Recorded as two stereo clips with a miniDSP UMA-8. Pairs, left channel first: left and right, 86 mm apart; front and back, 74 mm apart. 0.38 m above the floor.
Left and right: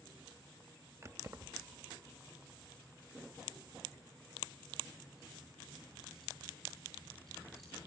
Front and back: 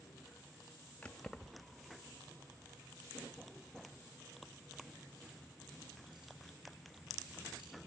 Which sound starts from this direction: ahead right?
Keys jangling, at 1.0 s.